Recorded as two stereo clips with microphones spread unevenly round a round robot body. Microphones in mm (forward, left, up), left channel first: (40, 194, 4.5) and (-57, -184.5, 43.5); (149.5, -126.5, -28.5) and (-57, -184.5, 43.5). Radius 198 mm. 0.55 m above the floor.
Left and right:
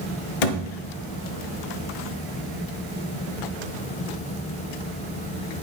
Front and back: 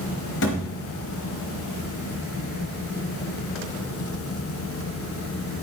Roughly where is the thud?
Ahead left.